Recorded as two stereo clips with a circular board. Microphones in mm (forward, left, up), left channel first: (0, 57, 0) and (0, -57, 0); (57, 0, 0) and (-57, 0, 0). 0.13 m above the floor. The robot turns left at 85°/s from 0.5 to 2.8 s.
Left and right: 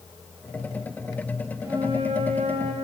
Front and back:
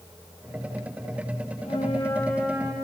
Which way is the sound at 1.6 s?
25° right.